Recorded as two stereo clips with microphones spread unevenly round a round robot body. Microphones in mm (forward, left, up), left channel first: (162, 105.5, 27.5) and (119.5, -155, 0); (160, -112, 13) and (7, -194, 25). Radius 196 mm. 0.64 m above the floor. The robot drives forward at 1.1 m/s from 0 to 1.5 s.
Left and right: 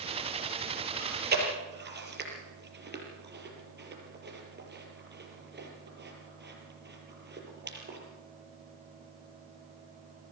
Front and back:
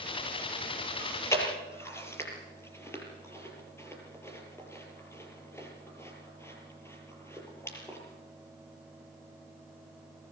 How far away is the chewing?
About 6.5 m.